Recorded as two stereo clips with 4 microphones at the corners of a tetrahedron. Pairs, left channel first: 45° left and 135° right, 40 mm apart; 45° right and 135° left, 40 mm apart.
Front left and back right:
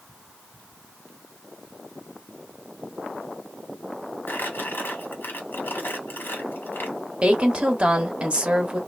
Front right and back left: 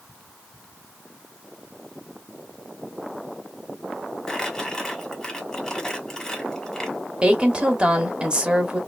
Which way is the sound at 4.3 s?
30° left.